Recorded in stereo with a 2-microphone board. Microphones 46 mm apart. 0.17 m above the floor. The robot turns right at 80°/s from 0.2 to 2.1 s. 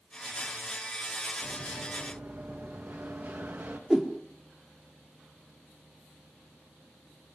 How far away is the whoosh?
About 2.5 m.